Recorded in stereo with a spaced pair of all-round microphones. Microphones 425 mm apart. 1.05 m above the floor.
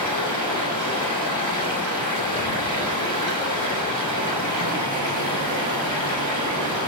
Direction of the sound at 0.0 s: 80° left.